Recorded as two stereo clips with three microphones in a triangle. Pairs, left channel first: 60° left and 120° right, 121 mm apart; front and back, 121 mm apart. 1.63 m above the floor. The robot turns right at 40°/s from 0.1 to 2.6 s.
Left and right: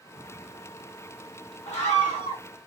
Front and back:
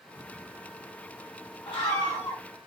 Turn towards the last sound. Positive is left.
turn(degrees=80)